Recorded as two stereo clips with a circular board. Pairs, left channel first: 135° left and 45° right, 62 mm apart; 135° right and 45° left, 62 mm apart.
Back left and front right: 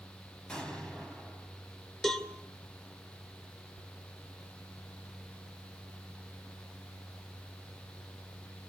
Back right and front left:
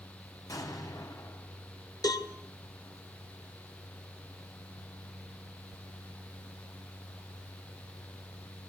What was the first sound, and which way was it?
An explosion, 150° right.